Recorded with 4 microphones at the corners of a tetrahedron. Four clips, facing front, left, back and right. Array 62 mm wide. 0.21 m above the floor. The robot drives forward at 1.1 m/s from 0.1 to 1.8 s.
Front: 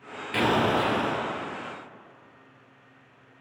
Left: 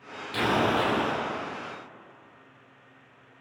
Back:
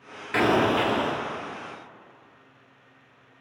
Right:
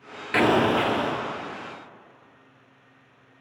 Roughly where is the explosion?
Right.